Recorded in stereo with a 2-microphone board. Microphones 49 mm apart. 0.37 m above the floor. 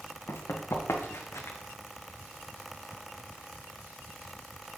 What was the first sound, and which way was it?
Running footsteps, 80° left.